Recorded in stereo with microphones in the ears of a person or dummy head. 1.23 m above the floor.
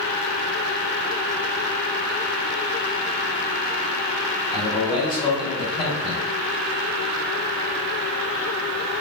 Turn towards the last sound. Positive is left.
turn(degrees=25)  # may be behind; listen again after turning